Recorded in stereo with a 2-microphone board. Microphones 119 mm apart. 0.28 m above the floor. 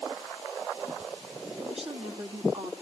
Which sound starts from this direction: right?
A woman speaking, at 1.6 s.